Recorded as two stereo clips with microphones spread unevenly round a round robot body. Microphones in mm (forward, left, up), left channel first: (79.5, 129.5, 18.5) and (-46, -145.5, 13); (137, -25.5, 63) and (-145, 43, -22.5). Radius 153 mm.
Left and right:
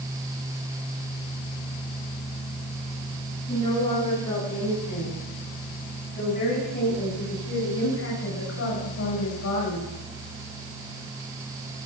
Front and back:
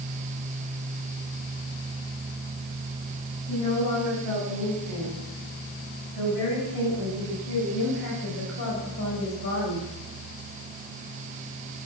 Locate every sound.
3.5 s a woman speaking: 10° right, 9.5 m; by 9.9 s 35° left, 4.5 m